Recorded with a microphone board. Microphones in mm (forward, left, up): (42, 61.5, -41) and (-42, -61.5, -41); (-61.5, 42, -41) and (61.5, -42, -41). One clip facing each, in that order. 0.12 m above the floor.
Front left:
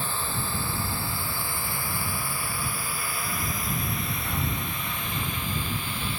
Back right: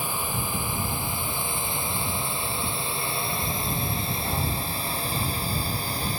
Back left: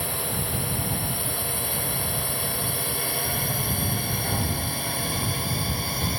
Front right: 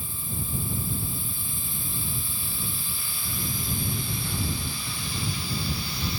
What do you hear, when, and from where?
0.0 s a drone: 160° left; by 6.2 s 175° right